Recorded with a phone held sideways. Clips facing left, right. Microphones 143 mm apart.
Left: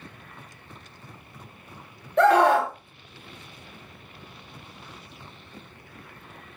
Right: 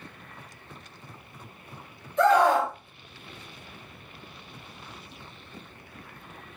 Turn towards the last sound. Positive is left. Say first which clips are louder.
# left 2 dB
turn(degrees=65)  # may be behind; listen again after turning